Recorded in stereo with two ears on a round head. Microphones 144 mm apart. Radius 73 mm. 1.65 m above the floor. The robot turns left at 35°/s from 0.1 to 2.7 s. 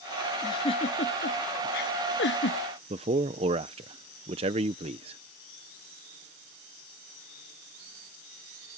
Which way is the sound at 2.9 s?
35° right (ahead or behind).